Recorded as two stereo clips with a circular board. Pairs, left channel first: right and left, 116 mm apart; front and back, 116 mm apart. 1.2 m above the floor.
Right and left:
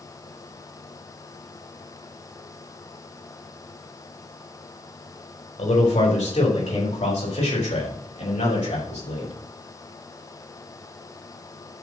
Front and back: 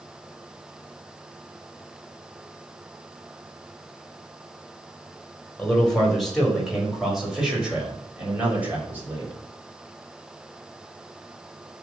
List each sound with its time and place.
5.6 s a man speaking: 85° right, 5 m; by 9.3 s 110° right, 5 m